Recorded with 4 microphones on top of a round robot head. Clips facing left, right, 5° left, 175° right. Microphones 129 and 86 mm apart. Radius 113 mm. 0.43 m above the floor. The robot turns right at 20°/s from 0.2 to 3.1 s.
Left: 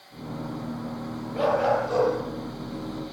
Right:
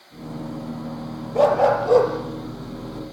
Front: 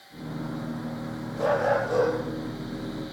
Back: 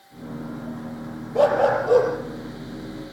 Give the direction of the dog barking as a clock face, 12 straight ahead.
5 o'clock.